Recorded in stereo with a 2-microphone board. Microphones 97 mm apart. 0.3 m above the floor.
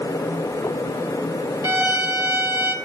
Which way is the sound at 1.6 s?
35° right (ahead or behind).